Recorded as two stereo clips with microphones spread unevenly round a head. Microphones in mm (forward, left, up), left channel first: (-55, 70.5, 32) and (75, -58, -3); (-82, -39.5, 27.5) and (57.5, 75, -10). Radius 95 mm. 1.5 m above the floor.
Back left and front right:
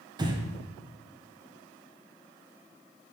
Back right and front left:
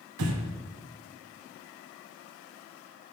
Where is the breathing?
25° left, 0.8 m.